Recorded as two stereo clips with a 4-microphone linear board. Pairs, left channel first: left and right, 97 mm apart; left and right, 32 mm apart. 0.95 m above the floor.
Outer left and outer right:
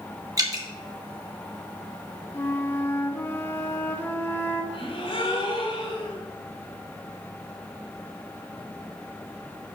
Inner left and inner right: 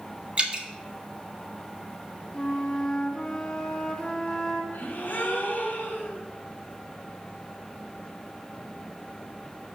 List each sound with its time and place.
0.4 s dripping: 40° right (ahead or behind), 1.6 m
2.3 s a flute: 25° left (ahead or behind), 0.8 m
4.7 s a gasp: 85° left, 2.5 m